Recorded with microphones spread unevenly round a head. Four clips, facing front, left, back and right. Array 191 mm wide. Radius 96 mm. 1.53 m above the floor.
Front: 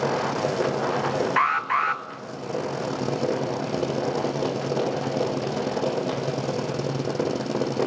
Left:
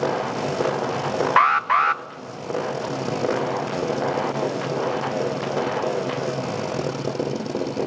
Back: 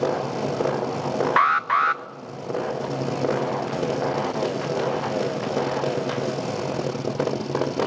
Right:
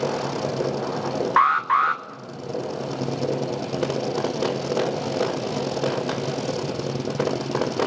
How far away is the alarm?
About 1.0 m.